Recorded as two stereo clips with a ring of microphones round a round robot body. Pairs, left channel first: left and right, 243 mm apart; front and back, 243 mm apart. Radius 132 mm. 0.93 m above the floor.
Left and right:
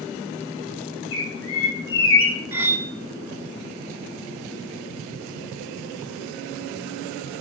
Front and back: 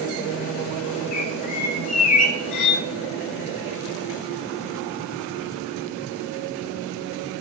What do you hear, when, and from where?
1.1 s a bird: 55° left, 1.9 m
2.5 s cutlery clinking: 10° right, 1.2 m